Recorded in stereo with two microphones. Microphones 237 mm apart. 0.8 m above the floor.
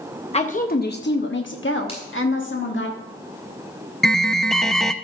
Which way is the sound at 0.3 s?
25° left (ahead or behind).